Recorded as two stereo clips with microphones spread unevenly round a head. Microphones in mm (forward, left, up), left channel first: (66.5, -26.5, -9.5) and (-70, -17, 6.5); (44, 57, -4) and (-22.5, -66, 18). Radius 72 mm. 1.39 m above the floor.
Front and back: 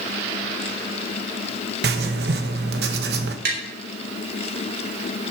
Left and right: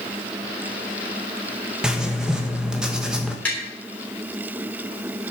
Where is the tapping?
145° left, 3 m.